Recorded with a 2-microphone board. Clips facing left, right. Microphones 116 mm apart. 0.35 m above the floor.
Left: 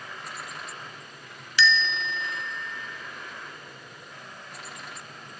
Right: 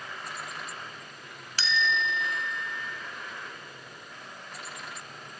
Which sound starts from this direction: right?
A bell, at 1.6 s.